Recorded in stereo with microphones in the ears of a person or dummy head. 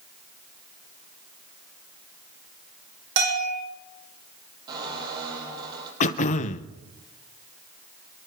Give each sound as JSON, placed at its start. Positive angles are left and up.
{"t": 3.2, "sound": "a bell", "side_deg": -65, "distance_m": 3.0}
{"t": 4.7, "sound": "a squeak", "side_deg": -25, "distance_m": 6.0}
{"t": 6.0, "sound": "throat clearing", "side_deg": 40, "distance_m": 0.8}